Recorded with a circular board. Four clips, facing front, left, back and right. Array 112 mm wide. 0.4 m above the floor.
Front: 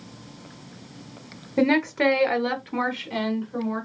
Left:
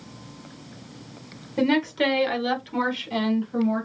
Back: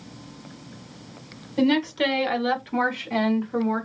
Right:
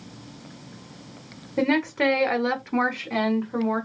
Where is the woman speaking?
15° right, 1.4 m; by 3.9 s 130° right, 1.6 m.